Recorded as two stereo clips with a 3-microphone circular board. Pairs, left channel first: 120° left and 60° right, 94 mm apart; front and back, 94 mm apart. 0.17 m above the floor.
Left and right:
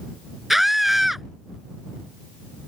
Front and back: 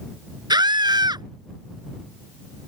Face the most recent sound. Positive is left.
turn(degrees=-150)